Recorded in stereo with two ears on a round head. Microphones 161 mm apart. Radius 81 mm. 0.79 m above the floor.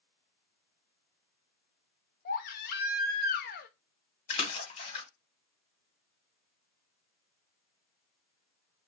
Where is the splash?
35° left (ahead or behind), 1.0 m.